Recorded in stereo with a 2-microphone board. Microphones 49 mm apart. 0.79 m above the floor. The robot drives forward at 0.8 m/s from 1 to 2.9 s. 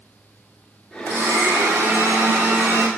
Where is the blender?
85° right, 1.6 m; by 2.9 s 45° right (ahead or behind), 2 m.